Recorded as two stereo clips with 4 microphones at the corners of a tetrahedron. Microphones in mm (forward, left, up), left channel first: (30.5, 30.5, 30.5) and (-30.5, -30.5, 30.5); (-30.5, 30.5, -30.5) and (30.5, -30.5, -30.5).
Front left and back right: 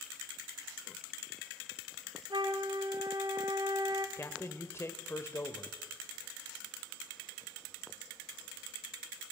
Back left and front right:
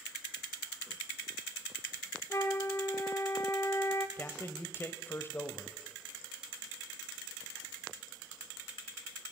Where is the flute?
170° right, 0.9 m.